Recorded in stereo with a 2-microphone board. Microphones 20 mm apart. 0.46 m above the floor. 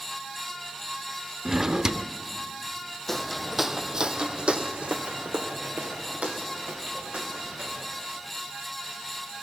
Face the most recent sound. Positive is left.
turn(degrees=-75)  # may be behind; listen again after turning